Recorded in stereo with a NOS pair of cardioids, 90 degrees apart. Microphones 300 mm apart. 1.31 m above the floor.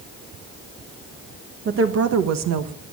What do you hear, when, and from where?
1.6 s a woman speaking: 40° right, 1.2 m; by 2.7 s 75° right, 1.3 m